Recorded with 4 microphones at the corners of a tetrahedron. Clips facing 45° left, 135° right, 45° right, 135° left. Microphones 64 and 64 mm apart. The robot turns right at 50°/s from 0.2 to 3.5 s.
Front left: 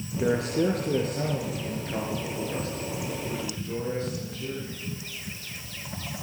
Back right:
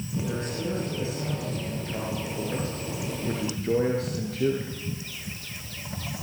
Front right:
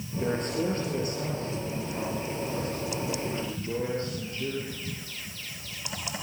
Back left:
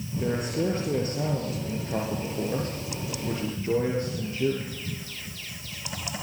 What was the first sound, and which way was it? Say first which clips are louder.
A man speaking: front left 9 dB, back left 1 dB; 40° left.